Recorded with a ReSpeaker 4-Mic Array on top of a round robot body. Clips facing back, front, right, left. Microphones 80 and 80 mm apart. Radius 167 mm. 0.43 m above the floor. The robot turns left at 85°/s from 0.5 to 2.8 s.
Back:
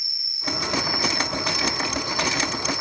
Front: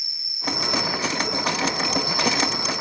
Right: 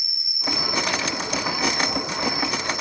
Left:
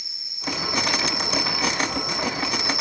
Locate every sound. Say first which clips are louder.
0.0 s an insect: front 2 dB, right 1 dB; 150° left, 9.5 m; by 2.8 s 45° right, 9.5 m